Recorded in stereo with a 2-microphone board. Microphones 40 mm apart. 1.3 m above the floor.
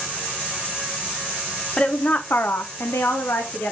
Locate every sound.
1.8 s a woman speaking: 25° left (ahead or behind), 0.7 m; by 3.7 s 65° left (ahead or behind), 0.9 m